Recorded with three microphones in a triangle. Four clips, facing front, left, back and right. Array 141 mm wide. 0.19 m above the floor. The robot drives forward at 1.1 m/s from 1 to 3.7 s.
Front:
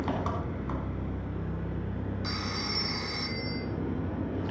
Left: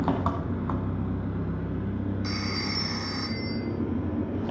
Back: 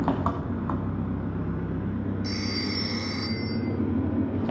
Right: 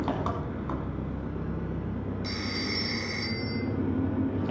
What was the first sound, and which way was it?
An engine running, 150° left.